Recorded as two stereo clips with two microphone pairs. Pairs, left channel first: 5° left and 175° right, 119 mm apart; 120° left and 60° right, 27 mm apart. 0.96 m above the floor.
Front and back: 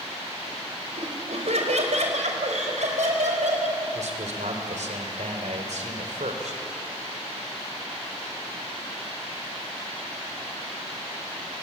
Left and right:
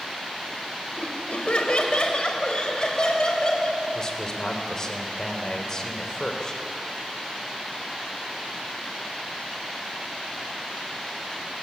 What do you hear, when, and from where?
1.0 s laughter: 160° left, 4.5 m; by 3.8 s straight behind, 6.5 m
4.0 s a man speaking: 175° right, 4 m